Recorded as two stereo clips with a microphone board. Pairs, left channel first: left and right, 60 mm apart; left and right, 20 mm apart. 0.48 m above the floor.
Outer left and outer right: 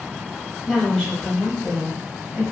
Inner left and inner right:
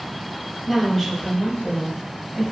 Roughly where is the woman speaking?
Centre.